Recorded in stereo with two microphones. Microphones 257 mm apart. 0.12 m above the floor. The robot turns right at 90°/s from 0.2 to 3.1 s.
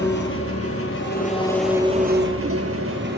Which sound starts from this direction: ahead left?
An engine running, at 0.0 s.